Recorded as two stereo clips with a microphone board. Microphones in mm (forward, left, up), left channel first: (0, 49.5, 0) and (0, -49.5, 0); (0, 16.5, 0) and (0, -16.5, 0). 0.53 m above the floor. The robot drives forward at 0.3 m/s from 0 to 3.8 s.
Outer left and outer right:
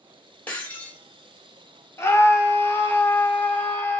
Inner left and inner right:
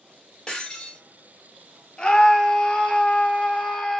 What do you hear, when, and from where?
0.5 s breaking glass: 15° left (ahead or behind), 1.4 m; by 1.0 s 20° left (ahead or behind), 1.3 m
2.0 s a scream: 25° left (ahead or behind), 0.9 m; by 4.0 s 20° left (ahead or behind), 1.2 m